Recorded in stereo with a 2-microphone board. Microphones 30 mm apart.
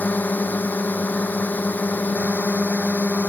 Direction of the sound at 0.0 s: 75° left (ahead or behind).